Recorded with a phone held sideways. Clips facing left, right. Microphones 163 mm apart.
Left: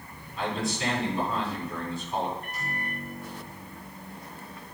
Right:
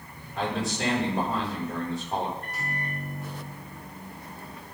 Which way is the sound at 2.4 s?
75° right (ahead or behind).